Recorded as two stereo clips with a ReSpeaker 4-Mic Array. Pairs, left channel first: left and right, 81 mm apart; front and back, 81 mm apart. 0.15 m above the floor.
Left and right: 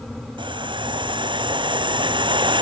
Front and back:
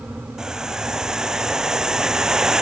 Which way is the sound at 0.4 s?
100° right.